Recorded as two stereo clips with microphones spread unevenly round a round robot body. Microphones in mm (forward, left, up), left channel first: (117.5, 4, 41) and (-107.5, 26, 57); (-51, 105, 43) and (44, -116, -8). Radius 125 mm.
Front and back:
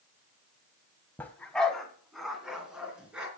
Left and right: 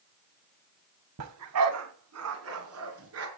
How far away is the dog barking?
About 1.6 m.